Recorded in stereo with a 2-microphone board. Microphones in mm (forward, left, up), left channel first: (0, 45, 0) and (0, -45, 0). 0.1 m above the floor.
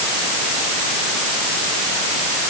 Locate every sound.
Only background noise.